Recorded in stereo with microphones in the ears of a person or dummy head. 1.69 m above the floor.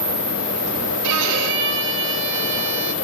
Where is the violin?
70° right (ahead or behind), 1.9 m.